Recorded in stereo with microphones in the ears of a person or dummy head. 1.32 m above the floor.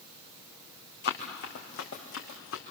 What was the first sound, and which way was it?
Running footsteps, 55° left (ahead or behind).